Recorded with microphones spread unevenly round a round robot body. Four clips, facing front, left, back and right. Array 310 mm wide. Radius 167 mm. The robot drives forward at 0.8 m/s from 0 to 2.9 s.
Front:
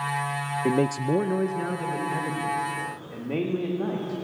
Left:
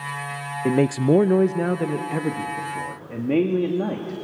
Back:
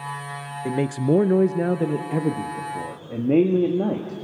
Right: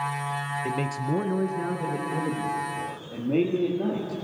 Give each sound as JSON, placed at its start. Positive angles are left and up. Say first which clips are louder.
{"t": 0.7, "sound": "a man speaking", "louder": "left 13 dB, back 2 dB", "azimuth_deg": 50, "distance_m": 0.6}